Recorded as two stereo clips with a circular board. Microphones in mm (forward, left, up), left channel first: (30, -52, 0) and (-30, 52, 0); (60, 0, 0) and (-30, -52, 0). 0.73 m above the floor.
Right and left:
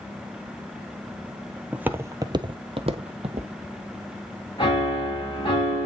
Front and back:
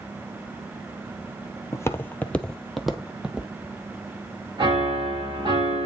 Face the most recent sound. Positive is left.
turn(degrees=-105)